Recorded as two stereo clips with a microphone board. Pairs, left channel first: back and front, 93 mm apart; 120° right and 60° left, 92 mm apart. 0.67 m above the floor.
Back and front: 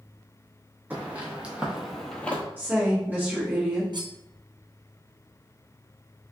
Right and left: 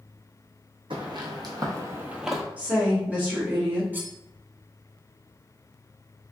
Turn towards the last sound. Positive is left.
turn(degrees=-5)